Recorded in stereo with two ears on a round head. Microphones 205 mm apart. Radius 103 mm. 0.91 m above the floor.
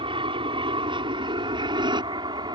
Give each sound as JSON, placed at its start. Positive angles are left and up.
{"t": 0.0, "sound": "an aircraft", "side_deg": -25}